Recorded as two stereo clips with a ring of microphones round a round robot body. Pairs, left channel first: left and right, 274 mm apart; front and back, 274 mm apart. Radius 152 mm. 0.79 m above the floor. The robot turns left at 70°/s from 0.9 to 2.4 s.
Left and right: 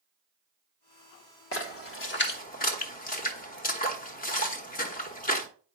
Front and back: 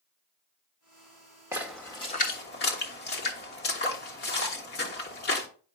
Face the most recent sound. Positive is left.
turn(degrees=40)